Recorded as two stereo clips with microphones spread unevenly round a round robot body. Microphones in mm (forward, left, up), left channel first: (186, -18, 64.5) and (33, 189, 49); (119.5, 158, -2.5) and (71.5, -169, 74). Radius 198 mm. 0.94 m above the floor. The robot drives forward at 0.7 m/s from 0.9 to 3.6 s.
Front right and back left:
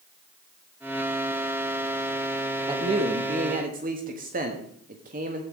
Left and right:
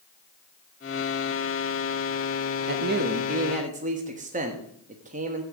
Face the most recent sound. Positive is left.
turn(degrees=-175)